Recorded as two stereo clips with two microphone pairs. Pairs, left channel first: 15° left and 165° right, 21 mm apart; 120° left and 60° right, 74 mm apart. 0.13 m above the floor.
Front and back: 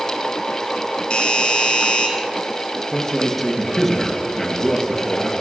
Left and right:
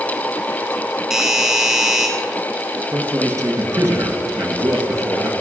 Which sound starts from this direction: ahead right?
A man speaking, at 2.9 s.